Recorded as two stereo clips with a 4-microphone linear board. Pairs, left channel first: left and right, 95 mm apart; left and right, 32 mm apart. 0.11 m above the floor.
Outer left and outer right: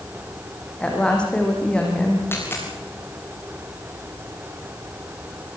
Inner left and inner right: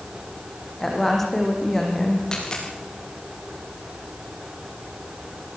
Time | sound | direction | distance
0.8 | a woman speaking | 10° left (ahead or behind) | 6.5 m
2.3 | a dropped coin | 25° left (ahead or behind) | 9 m